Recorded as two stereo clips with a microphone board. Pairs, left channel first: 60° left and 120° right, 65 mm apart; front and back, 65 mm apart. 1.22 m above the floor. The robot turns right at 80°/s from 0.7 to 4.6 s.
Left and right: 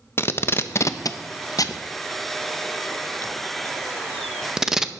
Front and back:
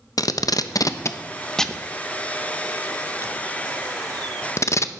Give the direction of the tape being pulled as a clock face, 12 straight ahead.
12 o'clock.